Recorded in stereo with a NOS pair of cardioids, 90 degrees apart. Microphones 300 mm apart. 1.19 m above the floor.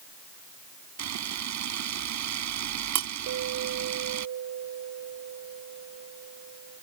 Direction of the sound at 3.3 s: 65° right.